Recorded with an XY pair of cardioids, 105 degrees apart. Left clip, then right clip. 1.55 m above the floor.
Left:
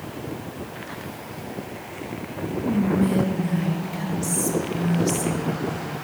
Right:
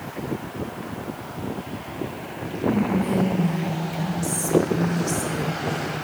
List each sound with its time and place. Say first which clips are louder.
2.6 s whispering: right 1 dB; 10° left, 1.0 m